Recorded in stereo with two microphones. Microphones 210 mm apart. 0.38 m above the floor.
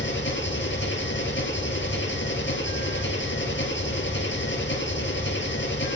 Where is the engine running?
65° left (ahead or behind), 2.5 m.